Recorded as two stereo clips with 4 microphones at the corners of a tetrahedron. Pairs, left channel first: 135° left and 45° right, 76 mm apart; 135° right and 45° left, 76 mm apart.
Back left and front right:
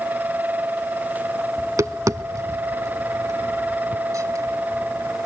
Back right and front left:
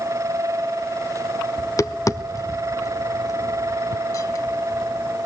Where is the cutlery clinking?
I don't hear cutlery clinking.